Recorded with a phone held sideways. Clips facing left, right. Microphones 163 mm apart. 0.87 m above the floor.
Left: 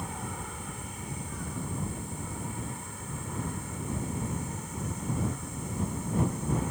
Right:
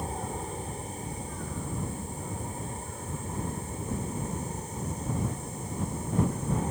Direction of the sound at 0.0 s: 35° right (ahead or behind).